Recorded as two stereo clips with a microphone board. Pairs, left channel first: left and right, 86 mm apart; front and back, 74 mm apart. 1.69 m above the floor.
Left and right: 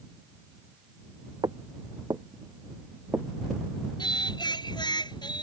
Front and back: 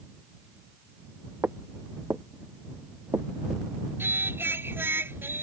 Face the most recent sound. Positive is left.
turn(degrees=120)